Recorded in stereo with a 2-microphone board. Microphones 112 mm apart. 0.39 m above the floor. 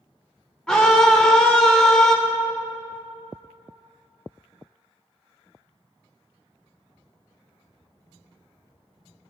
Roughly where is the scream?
Centre.